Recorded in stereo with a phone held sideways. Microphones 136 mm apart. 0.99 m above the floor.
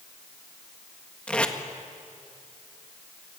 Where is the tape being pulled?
10° left (ahead or behind), 1.6 m.